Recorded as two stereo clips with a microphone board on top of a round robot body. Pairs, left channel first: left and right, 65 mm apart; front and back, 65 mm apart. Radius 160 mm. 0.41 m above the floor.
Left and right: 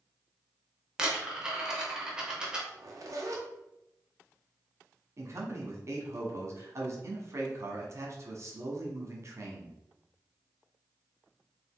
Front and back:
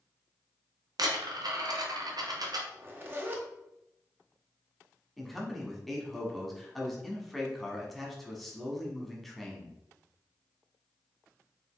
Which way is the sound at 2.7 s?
120° right.